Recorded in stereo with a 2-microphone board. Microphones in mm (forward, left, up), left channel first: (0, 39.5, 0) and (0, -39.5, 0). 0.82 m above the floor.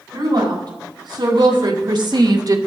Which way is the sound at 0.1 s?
70° right (ahead or behind).